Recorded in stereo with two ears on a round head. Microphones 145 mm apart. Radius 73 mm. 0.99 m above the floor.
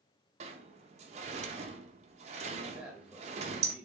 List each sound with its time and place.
0.4 s a sliding door: 40° right (ahead or behind), 0.5 m
2.7 s a man speaking: 5° right (ahead or behind), 1.0 m